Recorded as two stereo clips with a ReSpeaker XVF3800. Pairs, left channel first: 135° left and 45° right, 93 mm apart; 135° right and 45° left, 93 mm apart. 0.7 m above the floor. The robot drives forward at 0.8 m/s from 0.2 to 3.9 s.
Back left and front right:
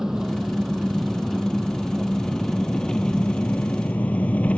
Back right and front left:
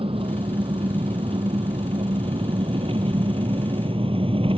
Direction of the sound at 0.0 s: 40° left.